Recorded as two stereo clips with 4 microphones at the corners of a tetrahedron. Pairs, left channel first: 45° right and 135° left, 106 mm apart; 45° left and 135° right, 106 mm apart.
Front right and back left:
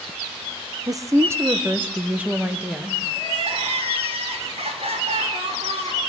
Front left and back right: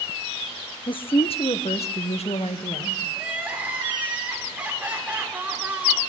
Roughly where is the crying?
Behind left.